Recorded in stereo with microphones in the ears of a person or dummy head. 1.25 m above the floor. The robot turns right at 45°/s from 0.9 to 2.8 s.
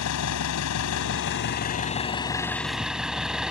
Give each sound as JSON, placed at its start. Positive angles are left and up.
{"t": 0.0, "sound": "an engine running", "azimuth_deg": 100}